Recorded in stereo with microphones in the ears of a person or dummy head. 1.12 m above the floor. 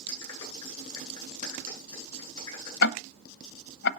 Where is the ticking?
65° left (ahead or behind), 0.7 m.